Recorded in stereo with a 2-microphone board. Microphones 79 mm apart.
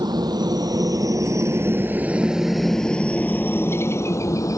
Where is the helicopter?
65° right (ahead or behind); by 4.6 s 45° left (ahead or behind).